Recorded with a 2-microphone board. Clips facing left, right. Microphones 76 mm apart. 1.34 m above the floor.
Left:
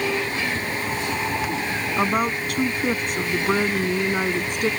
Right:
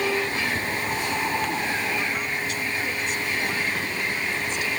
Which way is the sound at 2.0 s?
55° left (ahead or behind).